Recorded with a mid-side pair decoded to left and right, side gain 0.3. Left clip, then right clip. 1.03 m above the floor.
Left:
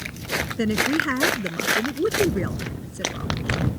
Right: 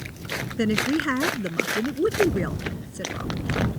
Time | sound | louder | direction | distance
0.6 | a woman speaking | even | 15° right | ?